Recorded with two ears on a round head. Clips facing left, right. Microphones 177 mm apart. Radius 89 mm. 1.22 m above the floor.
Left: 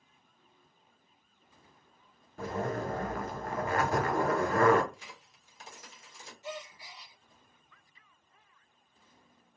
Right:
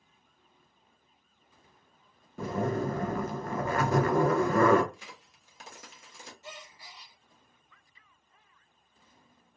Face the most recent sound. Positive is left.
turn(degrees=-35)  # may be behind; listen again after turning